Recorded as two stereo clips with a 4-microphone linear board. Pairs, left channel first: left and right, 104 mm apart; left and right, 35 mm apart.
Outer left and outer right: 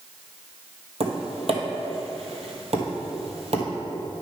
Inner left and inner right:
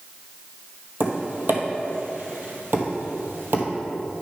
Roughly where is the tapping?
Right.